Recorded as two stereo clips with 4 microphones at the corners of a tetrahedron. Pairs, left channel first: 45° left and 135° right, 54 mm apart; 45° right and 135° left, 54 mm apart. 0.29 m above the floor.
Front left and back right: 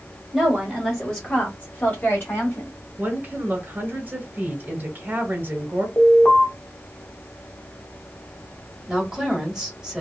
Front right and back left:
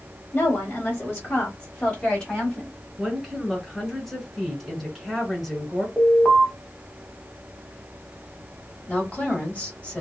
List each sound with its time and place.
0.3 s a woman speaking: 50° right, 1.2 m; by 2.7 s 30° left, 1.7 m
3.0 s a woman speaking: 135° right, 1.5 m
6.0 s an alarm: 35° left, 1.2 m
8.9 s a woman speaking: 65° right, 1.3 m